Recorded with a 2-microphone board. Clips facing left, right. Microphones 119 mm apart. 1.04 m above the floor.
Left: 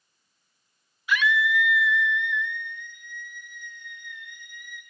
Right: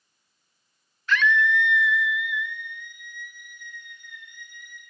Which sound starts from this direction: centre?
A scream, at 1.1 s.